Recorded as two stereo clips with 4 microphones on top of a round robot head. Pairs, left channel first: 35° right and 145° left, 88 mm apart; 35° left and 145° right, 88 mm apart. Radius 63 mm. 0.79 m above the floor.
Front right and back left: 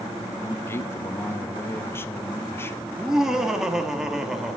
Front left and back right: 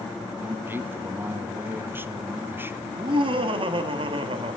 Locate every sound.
0.4 s a man speaking: 90° right, 0.8 m
2.9 s laughter: 130° right, 1.2 m